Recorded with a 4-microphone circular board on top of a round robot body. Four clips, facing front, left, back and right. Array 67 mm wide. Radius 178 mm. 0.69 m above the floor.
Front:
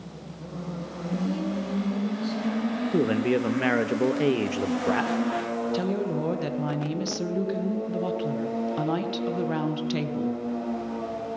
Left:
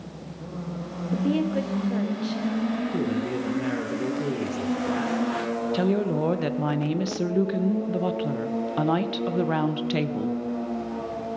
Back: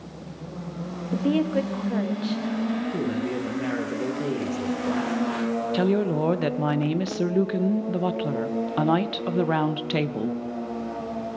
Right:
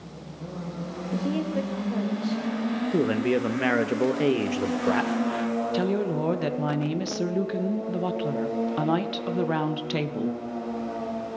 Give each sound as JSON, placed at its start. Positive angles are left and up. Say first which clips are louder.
{"t": 1.1, "sound": "a woman speaking", "louder": "left 3 dB, back 6 dB", "azimuth_deg": 170, "distance_m": 1.8}
{"t": 2.9, "sound": "a man speaking", "louder": "right 3 dB, front 4 dB", "azimuth_deg": -45, "distance_m": 1.0}
{"t": 5.7, "sound": "a woman speaking", "louder": "left 4 dB, back 7 dB", "azimuth_deg": 175, "distance_m": 1.2}